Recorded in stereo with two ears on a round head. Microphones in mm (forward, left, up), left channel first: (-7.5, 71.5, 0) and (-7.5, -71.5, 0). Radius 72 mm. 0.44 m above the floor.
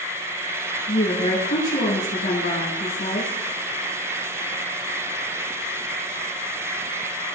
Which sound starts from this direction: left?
A woman speaking, at 0.9 s.